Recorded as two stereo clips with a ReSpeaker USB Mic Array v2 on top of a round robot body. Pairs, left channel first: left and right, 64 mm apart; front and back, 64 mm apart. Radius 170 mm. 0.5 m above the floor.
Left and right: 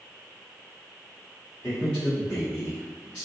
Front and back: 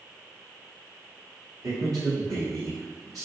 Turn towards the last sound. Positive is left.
turn(degrees=160)